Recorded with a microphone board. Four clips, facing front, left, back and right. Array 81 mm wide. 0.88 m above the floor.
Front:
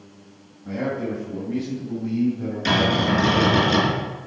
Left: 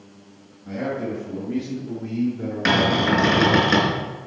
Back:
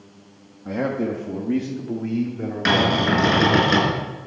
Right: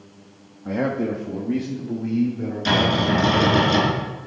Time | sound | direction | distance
0.7 | a man speaking | 120° right | 1.0 m
2.6 | a cupboard door | 130° left | 3.5 m